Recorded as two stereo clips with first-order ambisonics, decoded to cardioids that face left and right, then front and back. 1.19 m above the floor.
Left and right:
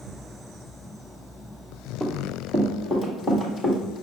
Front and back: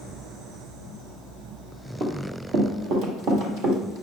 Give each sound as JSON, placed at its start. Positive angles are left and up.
{"t": 2.0, "sound": "running footsteps", "azimuth_deg": -165, "distance_m": 1.5}